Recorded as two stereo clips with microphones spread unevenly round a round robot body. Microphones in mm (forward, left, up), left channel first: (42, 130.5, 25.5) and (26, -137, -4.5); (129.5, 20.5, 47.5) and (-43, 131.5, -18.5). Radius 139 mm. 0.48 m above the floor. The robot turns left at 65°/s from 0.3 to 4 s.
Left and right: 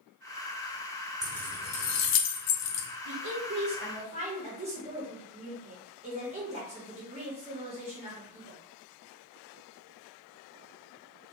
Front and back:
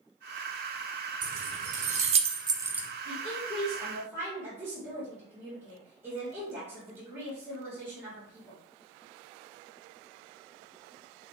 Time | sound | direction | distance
1.2 | keys jangling | 175° right | 0.6 m
3.0 | a woman speaking | 85° right | 1.2 m